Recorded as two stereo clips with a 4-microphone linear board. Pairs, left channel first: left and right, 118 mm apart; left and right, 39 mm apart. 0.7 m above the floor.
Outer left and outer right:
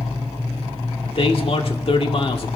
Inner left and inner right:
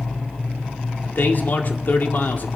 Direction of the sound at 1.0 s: 60° left (ahead or behind).